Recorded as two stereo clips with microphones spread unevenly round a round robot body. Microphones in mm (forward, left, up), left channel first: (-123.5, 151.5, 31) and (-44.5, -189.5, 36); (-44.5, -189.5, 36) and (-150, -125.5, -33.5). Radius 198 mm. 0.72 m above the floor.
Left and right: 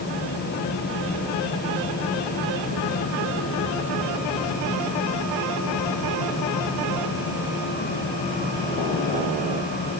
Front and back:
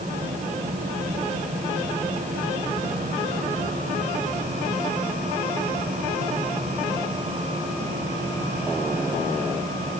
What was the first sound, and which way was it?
Only background noise.